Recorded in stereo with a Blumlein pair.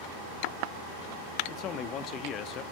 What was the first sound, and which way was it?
A man speaking, 30° left.